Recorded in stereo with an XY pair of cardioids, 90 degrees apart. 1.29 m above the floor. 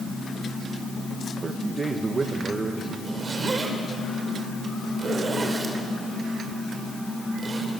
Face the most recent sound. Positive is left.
turn(degrees=-35)